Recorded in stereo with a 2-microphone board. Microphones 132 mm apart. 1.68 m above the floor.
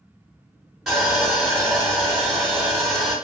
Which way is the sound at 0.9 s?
Centre (ahead or behind).